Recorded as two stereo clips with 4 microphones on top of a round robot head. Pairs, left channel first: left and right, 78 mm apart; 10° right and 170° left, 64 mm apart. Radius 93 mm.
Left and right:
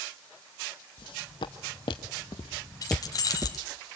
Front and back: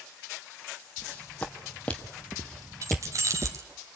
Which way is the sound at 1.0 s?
60° left.